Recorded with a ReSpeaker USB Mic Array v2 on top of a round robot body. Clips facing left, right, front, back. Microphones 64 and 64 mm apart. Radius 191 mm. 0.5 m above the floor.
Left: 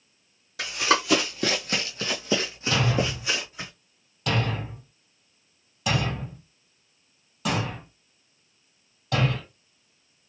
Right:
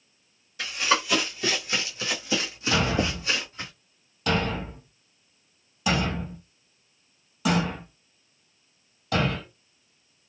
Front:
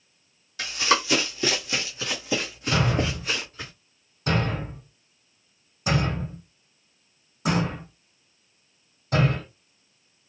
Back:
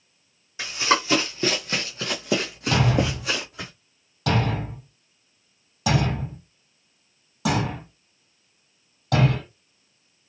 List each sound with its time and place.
0.6 s running footsteps: 110° left, 1.7 m; by 3.7 s 170° left, 2 m
2.7 s a thud: straight behind, 2.5 m